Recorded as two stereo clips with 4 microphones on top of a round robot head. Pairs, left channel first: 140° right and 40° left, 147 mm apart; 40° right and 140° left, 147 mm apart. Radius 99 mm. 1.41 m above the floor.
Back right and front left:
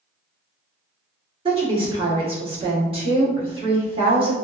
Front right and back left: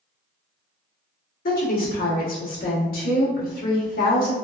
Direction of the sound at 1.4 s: 15° right.